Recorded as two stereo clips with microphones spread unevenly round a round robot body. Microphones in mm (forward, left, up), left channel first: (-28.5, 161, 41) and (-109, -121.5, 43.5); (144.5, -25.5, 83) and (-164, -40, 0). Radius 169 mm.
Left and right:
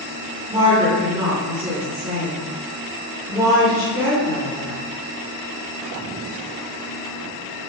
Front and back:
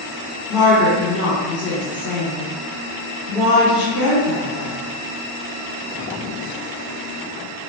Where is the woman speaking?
35° right, 1.0 m.